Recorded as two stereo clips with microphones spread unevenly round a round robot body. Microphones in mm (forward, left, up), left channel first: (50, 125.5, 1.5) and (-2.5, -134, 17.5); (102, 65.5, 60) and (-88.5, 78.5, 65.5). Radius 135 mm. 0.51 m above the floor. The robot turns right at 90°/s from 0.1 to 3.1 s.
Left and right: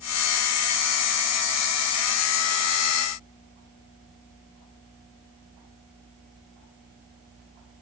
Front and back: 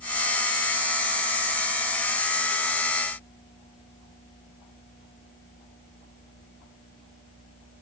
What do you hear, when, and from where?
Only background noise.